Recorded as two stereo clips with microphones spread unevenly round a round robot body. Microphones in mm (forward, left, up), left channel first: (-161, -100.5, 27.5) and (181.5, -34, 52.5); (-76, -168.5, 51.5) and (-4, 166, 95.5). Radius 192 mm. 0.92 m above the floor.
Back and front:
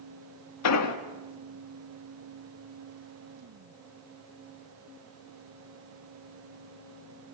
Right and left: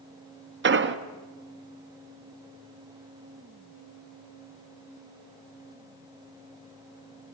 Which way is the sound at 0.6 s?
140° left.